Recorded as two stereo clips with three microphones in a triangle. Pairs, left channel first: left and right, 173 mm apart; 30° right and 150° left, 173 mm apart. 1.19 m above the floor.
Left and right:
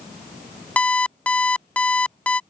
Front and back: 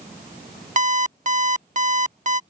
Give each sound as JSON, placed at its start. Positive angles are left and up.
{"t": 0.8, "sound": "an alarm clock", "azimuth_deg": 170}